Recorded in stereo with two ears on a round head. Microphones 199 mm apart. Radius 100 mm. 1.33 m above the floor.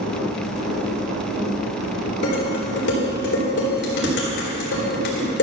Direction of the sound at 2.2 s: 50° left (ahead or behind).